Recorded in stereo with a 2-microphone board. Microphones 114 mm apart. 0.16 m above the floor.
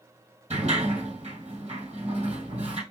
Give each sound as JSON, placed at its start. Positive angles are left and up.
{"t": 0.5, "sound": "a sliding door", "side_deg": -80, "distance_m": 3.0}